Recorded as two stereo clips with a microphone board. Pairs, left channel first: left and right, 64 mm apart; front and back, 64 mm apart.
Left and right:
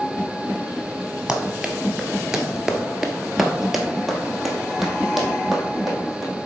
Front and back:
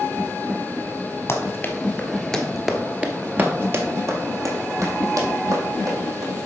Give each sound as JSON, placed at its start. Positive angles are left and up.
{"t": 1.3, "sound": "running footsteps", "azimuth_deg": -15, "distance_m": 1.4}